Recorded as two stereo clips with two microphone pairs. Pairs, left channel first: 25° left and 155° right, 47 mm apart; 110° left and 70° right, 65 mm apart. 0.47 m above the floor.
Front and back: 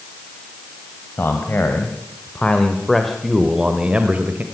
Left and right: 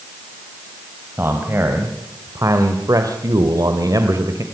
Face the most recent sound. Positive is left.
turn(degrees=-105)